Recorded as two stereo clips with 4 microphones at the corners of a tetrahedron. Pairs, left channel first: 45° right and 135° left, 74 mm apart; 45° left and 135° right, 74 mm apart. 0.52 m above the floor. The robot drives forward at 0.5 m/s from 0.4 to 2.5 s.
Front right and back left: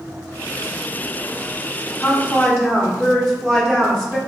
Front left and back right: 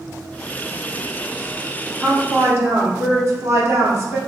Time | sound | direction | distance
2.0 | a woman speaking | 90° right | 0.9 m